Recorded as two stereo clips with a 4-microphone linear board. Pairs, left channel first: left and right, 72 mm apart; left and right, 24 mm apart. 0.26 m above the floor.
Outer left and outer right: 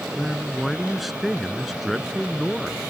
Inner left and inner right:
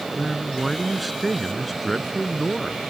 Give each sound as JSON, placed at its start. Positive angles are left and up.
{"t": 0.2, "sound": "a man speaking", "side_deg": 0}